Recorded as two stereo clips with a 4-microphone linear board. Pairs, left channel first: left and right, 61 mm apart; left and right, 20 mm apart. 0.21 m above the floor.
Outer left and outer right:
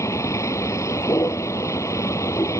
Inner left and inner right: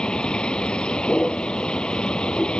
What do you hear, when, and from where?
0.0 s a vehicle: 55° left (ahead or behind)